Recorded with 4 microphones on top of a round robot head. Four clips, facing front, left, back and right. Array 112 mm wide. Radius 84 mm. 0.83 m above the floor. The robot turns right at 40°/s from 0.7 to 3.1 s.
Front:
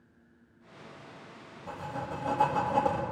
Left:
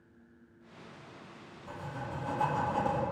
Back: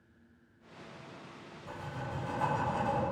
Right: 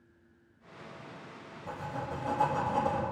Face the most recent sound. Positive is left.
turn(degrees=0)